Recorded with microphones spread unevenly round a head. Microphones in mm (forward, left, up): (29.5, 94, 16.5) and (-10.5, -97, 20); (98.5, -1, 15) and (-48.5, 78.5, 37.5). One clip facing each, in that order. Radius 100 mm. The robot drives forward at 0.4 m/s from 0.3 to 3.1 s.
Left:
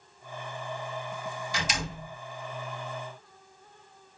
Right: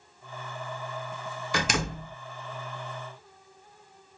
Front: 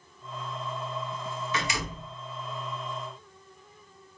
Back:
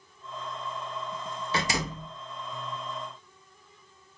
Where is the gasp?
No gasp in this recording.